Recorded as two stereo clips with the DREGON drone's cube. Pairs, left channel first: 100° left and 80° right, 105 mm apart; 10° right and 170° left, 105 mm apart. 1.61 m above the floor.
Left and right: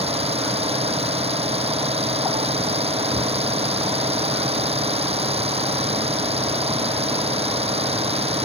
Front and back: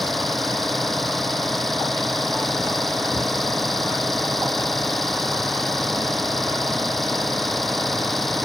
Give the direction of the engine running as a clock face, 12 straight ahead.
3 o'clock.